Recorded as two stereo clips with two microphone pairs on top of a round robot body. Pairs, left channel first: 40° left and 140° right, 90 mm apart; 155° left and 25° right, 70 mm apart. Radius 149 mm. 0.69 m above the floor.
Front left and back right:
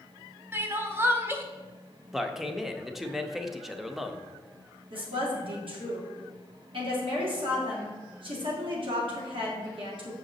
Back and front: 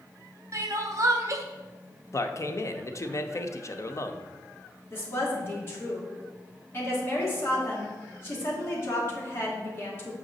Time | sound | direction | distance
0.5 | crying | 70° right | 0.6 m
2.1 | a man speaking | 135° left | 0.8 m
4.9 | a woman speaking | 150° right | 2.5 m